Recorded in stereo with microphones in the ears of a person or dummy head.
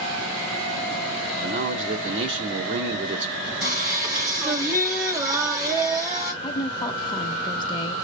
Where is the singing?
10° right (ahead or behind), 1.6 m.